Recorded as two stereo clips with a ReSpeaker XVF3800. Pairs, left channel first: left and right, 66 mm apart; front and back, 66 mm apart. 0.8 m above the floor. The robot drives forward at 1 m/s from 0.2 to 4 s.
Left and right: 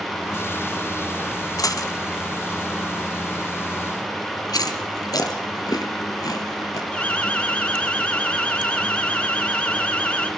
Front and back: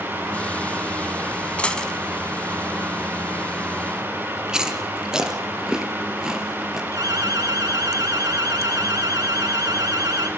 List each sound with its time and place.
1.6 s a dropped coin: 70° left, 1.7 m; by 1.9 s 80° left, 1.6 m
4.5 s chewing: 100° left, 2.5 m
6.9 s an alarm: 160° left, 3 m